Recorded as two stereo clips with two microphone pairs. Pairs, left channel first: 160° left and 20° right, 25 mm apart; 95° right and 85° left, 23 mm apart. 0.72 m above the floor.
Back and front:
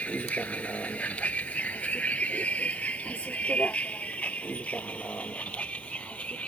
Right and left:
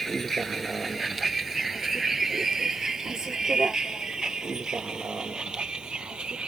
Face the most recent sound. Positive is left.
turn(degrees=130)